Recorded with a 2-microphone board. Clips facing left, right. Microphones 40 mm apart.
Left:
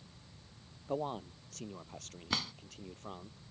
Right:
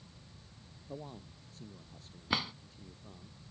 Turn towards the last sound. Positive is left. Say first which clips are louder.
# right 3 dB
turn(degrees=-15)  # may be behind; listen again after turning